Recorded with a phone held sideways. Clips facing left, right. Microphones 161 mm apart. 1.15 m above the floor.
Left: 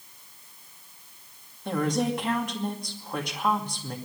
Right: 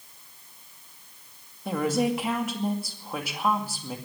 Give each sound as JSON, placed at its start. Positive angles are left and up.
{"t": 1.6, "sound": "a woman speaking", "side_deg": -5, "distance_m": 2.5}